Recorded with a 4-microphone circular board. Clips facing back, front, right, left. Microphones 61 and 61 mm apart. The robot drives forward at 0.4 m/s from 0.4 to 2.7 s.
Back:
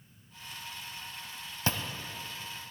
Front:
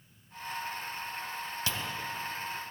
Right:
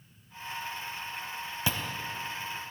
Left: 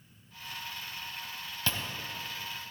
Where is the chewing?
160° right, 0.8 m.